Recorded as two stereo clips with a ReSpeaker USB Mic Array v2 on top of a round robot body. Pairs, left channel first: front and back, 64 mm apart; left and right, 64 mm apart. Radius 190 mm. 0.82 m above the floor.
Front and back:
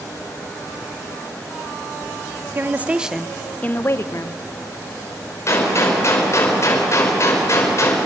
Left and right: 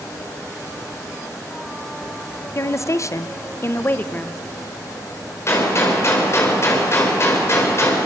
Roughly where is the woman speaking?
Behind left.